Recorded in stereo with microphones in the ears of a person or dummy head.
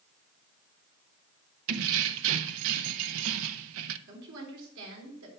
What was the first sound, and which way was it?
Keys jangling, 75° right (ahead or behind).